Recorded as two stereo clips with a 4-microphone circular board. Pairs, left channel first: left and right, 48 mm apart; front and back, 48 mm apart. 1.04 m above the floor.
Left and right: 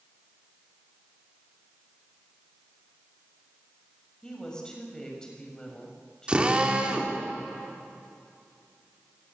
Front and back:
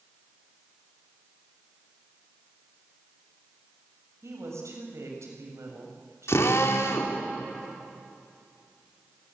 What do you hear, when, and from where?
4.2 s a woman speaking: 165° left, 6.5 m
6.3 s a drill: 20° right, 3 m